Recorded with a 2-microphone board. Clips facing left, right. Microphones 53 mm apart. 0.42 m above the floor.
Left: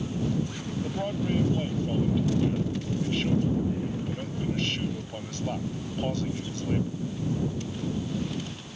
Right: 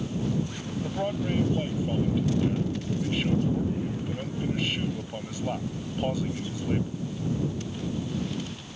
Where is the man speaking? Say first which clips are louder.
Right 1 dB; 10° right (ahead or behind).